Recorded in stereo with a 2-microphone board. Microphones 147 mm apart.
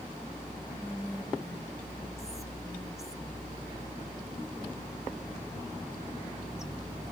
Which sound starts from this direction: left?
Whispering, at 0.7 s.